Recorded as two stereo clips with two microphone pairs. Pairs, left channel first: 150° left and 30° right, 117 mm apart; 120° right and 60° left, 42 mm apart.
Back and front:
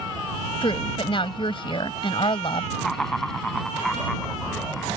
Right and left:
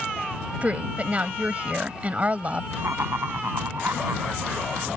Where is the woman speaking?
110° left.